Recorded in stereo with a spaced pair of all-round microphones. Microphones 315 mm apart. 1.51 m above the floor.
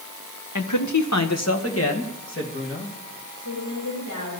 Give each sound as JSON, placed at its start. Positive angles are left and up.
{"t": 0.6, "sound": "a man speaking", "side_deg": 75, "distance_m": 1.0}
{"t": 3.4, "sound": "a woman speaking", "side_deg": 80, "distance_m": 6.0}